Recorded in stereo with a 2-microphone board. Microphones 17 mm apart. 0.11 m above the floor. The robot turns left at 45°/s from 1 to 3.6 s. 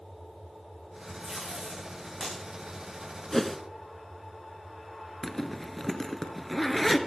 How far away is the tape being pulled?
About 9 m.